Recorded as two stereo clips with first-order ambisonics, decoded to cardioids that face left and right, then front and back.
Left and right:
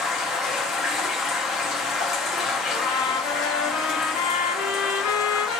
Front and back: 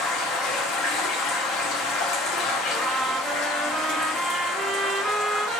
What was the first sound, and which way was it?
Running water, 35° left.